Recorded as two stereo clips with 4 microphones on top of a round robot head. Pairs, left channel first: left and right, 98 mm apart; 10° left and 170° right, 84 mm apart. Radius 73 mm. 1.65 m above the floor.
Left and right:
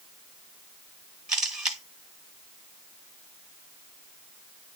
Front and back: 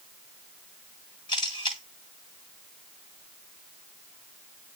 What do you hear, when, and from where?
1.3 s a camera shutter: 10° right, 1.7 m